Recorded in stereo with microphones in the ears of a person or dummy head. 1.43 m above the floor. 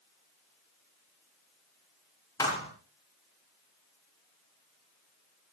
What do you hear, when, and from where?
2.4 s a thud: 10° left (ahead or behind), 7 m